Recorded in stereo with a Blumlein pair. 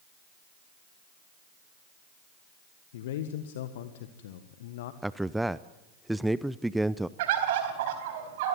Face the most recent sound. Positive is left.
turn(degrees=-50)